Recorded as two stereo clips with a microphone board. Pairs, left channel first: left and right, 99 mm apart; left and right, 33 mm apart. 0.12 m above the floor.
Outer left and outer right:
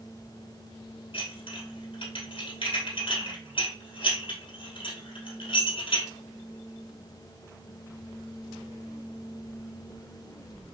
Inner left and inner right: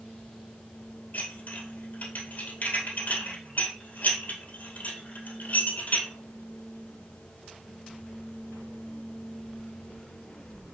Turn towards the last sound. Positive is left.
turn(degrees=60)  # may be behind; listen again after turning